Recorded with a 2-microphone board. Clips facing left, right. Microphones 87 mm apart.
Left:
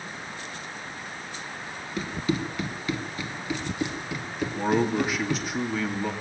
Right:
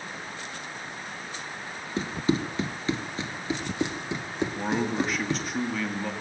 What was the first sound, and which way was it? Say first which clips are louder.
Running footsteps: right 2 dB; 25° right (ahead or behind).